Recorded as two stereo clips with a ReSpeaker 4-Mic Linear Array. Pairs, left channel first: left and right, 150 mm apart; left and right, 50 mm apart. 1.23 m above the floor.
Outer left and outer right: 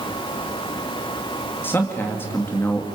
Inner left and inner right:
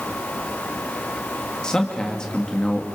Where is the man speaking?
15° left (ahead or behind), 2.5 m.